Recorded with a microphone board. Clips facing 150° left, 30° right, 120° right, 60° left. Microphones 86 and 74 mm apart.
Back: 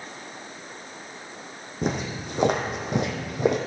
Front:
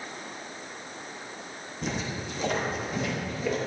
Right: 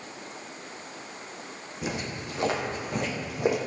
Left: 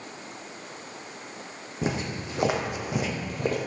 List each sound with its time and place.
1.8 s footsteps: 115° left, 2.5 m; by 3.6 s 165° left, 1.9 m